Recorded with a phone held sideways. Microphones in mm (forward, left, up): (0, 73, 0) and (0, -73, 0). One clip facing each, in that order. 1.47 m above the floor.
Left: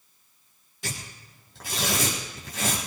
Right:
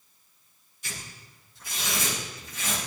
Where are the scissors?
No scissors in this recording.